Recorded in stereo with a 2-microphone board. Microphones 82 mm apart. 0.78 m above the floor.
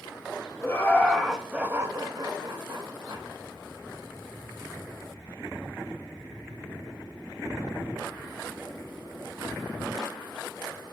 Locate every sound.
0.6 s laughter: 25° left (ahead or behind), 1.0 m; by 3.2 s 60° right (ahead or behind), 1.6 m